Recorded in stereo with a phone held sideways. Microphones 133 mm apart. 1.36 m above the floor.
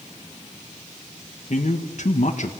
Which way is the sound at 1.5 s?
60° left (ahead or behind).